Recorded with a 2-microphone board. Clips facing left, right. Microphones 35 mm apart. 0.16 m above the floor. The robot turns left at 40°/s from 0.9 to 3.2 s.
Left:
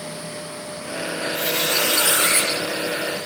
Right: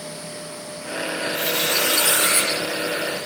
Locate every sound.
1.3 s a squeak: 90° left, 9.5 m; by 2.5 s 40° left, 9.5 m